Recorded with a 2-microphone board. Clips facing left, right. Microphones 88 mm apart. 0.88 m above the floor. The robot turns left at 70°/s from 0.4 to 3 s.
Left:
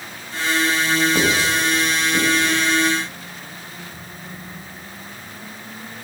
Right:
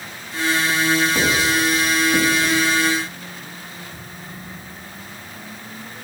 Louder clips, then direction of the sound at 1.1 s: Even; 20° left (ahead or behind).